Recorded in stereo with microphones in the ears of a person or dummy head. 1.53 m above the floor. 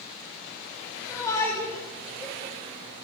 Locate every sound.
1.1 s a shout: 20° left (ahead or behind), 6 m